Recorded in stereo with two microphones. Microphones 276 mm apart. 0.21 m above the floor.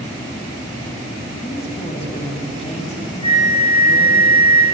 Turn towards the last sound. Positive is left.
turn(degrees=-20)  # may be behind; listen again after turning